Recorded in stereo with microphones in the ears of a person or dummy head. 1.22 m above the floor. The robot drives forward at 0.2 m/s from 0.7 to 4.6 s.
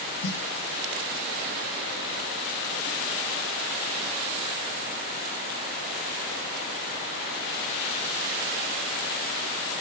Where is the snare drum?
80° left, 0.7 m.